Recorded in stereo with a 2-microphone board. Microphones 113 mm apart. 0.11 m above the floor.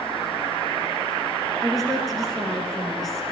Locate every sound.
1.6 s a woman speaking: centre (ahead or behind), 1.8 m